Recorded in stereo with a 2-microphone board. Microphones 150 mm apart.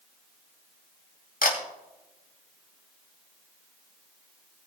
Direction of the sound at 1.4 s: 70° left (ahead or behind).